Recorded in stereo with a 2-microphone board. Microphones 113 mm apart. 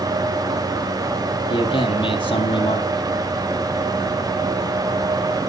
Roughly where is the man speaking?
Left.